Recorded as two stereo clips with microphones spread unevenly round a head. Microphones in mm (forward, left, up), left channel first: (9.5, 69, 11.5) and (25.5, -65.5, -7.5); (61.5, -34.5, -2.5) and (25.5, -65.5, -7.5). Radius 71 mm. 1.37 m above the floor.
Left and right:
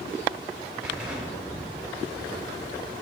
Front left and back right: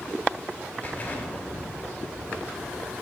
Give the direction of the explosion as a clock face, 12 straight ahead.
12 o'clock.